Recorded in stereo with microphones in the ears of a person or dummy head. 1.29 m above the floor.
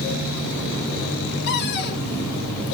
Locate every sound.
1.5 s a cupboard door: 55° left (ahead or behind), 1.4 m